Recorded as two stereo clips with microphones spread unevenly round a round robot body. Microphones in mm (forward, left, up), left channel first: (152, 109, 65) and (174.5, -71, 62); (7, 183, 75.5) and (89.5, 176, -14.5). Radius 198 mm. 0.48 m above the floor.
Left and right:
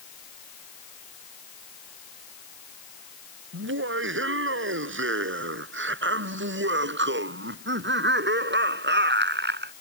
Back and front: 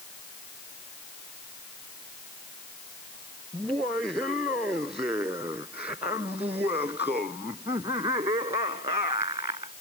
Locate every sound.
3.5 s laughter: 95° right; by 9.7 s 60° right